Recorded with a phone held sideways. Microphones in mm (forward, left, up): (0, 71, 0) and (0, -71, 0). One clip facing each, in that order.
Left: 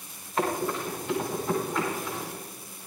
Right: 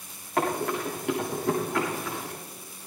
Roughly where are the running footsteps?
Right.